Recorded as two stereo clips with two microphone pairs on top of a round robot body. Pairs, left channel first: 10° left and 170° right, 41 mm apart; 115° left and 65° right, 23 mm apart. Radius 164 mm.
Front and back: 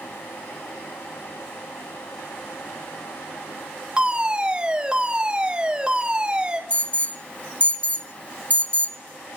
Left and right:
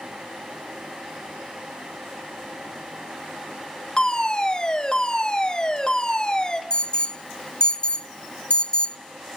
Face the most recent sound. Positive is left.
turn(degrees=65)